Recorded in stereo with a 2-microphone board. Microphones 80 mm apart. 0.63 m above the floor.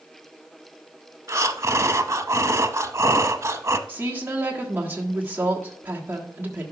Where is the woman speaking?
25° right (ahead or behind), 1.4 m.